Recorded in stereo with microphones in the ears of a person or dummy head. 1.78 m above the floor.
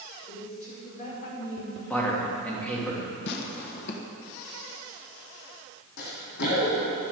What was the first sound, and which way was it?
A woman speaking, 40° left (ahead or behind).